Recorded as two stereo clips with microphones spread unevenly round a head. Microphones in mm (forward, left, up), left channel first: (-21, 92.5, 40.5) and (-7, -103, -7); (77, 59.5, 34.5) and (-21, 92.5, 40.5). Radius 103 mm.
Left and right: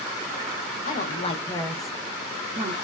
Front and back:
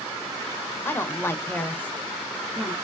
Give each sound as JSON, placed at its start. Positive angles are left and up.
{"t": 0.8, "sound": "a woman speaking", "azimuth_deg": 40, "distance_m": 0.7}